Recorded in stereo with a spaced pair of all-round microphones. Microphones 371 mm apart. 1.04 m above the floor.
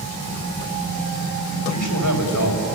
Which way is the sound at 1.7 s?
55° left (ahead or behind).